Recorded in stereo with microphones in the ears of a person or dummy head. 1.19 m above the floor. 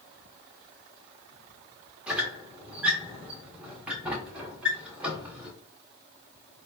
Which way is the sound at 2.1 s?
5° right (ahead or behind).